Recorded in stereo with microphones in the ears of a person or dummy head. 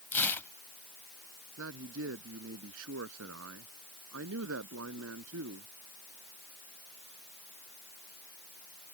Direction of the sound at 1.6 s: 80° right.